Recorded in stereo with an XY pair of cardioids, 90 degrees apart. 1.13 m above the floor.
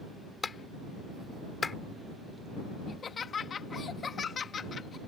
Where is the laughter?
50° left.